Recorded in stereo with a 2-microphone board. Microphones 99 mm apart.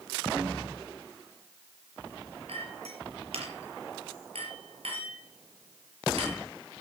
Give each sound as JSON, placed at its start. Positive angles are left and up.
{"t": 2.5, "sound": "a clink", "side_deg": -80, "distance_m": 4.5}